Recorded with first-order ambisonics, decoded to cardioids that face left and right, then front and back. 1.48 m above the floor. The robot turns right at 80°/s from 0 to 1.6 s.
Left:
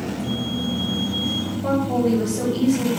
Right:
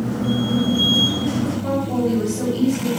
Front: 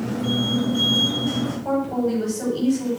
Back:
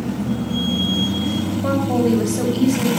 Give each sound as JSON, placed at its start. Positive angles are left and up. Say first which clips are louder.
{"t": 1.6, "sound": "a woman speaking", "louder": "left 2 dB, back 5 dB", "azimuth_deg": 165, "distance_m": 4.5}